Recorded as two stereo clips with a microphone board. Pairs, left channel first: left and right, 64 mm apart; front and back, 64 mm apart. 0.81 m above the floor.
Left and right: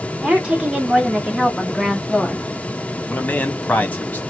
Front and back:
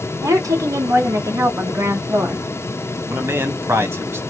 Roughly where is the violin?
No violin in this recording.